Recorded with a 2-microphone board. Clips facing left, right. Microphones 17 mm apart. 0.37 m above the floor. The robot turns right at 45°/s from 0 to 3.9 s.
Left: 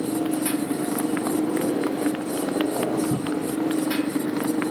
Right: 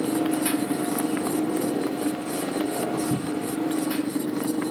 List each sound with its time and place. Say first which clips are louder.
0.0 s a motorcycle: right 1 dB; 35° right; by 4.7 s 140° left
3.1 s a cupboard door: left 2 dB; 10° right (ahead or behind); by 3.5 s 10° left (ahead or behind)